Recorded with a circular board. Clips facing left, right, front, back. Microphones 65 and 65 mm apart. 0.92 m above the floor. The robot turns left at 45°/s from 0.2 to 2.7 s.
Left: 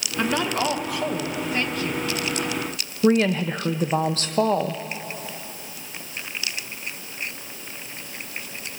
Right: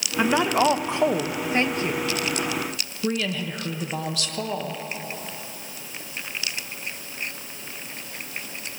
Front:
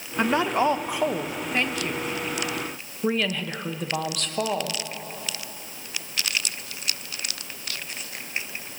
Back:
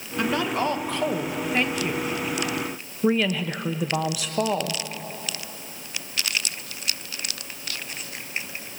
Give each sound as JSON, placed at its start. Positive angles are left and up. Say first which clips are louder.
{"t": 0.2, "sound": "a woman speaking", "louder": "right 3 dB, front 2 dB", "azimuth_deg": -30, "distance_m": 0.6}
{"t": 3.0, "sound": "a woman speaking", "louder": "left 8 dB, back 3 dB", "azimuth_deg": 100, "distance_m": 0.7}